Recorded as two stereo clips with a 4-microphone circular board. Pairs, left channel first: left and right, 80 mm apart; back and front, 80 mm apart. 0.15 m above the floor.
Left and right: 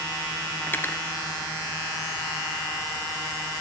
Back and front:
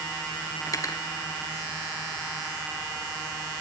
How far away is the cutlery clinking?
About 1.1 m.